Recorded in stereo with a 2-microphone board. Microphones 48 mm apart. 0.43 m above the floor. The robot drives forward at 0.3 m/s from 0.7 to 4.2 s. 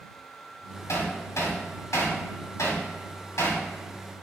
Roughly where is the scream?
No scream in this recording.